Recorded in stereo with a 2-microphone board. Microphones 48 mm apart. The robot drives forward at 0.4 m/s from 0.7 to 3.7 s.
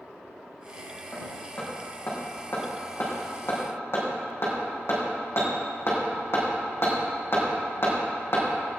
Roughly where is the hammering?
Left.